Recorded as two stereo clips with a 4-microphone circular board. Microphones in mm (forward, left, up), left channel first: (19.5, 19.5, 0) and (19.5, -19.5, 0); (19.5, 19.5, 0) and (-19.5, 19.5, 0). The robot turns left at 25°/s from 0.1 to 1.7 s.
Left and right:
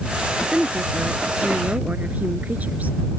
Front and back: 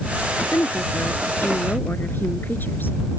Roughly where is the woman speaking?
Ahead.